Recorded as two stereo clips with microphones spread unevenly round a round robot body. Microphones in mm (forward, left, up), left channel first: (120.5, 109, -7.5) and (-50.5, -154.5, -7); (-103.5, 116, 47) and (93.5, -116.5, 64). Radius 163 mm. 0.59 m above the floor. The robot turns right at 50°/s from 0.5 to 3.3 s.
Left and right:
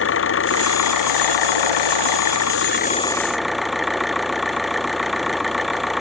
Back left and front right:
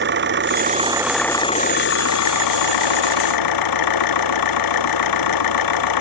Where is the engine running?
5° left; by 6.0 s 145° left.